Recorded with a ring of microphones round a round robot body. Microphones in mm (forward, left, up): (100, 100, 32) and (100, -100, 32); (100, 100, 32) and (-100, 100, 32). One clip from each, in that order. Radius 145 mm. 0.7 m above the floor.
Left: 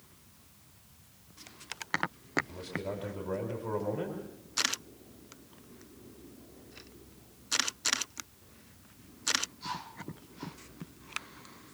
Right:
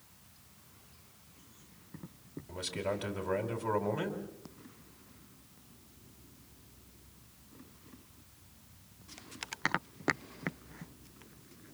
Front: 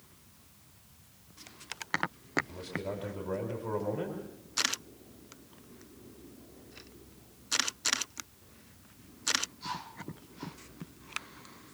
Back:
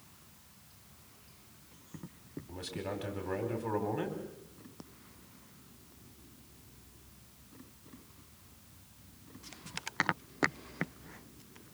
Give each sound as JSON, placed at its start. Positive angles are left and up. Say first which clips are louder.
{"t": 2.5, "sound": "a man speaking", "louder": "right 2 dB, front 2 dB", "azimuth_deg": -115, "distance_m": 4.5}